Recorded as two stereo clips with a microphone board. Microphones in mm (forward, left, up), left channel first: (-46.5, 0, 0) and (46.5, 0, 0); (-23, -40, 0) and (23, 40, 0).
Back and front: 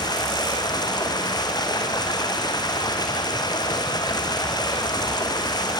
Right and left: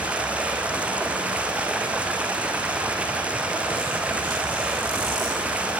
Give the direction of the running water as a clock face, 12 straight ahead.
7 o'clock.